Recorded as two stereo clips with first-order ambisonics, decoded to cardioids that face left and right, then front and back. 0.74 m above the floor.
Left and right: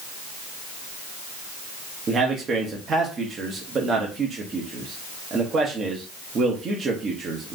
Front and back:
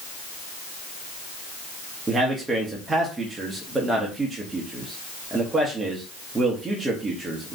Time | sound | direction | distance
2.1 | a man speaking | 115° right | 0.7 m